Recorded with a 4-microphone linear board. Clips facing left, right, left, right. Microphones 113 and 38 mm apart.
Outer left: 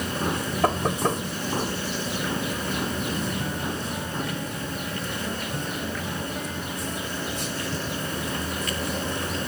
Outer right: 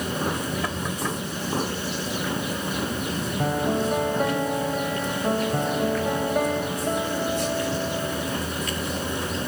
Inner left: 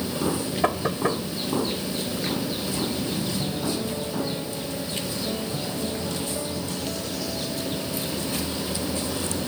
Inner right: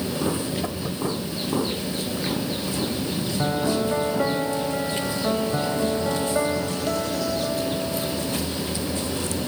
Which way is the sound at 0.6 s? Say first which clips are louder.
Outer left 5 dB, inner left 4 dB; 50° left (ahead or behind).